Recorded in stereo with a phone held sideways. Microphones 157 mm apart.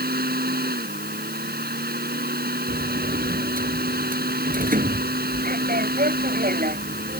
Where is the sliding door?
65° right (ahead or behind).